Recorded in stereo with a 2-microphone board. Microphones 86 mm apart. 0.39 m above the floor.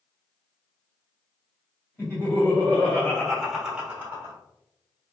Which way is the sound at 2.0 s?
25° left (ahead or behind).